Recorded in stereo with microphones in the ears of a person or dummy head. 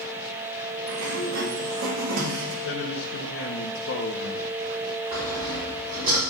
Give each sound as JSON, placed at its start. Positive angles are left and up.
{"t": 0.9, "sound": "a sliding door", "side_deg": -75, "distance_m": 2.0}
{"t": 2.6, "sound": "a man speaking", "side_deg": 75, "distance_m": 1.4}
{"t": 5.1, "sound": "sawing", "side_deg": -45, "distance_m": 5.0}